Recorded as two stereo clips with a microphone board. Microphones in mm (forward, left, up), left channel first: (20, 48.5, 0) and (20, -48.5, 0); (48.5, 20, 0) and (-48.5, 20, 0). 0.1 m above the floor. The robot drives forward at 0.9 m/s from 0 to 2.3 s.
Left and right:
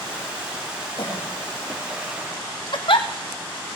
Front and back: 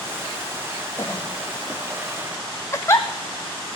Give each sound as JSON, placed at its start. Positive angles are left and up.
{"t": 1.0, "sound": "a cough", "azimuth_deg": 60, "distance_m": 4.5}
{"t": 2.7, "sound": "a giggle", "azimuth_deg": 60, "distance_m": 0.9}